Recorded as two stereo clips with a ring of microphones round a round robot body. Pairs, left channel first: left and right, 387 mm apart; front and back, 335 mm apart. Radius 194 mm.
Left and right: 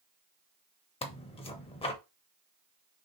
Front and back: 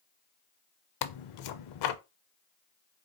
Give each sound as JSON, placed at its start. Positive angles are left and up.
{"t": 1.0, "sound": "tearing paper", "azimuth_deg": 15, "distance_m": 0.6}